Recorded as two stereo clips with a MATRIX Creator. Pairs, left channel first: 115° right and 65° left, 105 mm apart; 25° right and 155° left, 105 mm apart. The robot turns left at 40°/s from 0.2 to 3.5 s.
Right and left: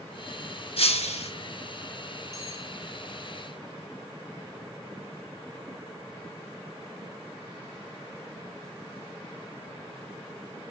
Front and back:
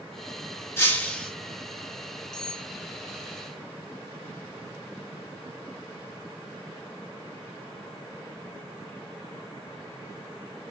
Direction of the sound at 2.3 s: 60° left.